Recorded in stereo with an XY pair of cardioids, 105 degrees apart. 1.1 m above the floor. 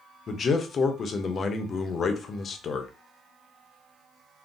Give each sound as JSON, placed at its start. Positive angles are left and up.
{"t": 0.3, "sound": "a man speaking", "azimuth_deg": 45, "distance_m": 0.7}